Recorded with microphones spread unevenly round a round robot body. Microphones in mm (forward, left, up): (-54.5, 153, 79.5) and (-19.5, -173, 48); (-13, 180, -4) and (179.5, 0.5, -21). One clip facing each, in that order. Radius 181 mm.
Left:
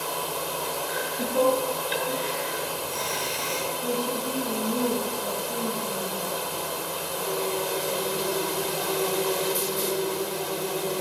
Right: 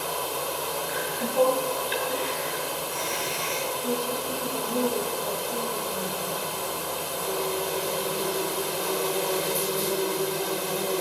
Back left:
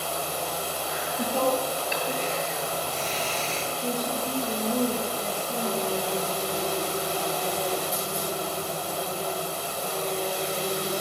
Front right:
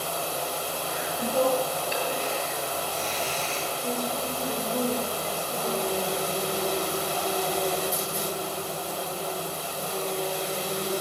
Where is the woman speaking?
90° left, 6.5 m.